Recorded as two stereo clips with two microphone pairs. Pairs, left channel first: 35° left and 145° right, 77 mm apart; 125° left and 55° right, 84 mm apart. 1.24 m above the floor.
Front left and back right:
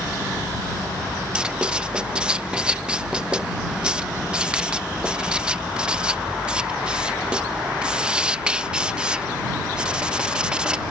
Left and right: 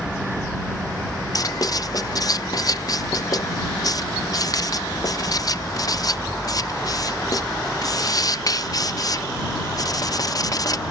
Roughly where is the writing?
Behind left.